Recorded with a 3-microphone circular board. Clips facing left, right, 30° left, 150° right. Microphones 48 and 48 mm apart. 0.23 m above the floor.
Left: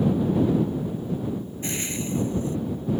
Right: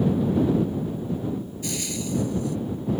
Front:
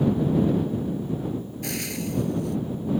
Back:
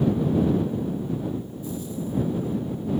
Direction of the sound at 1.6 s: 30° left.